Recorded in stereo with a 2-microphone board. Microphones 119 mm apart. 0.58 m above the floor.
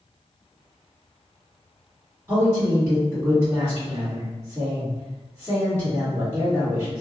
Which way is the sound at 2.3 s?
15° right (ahead or behind).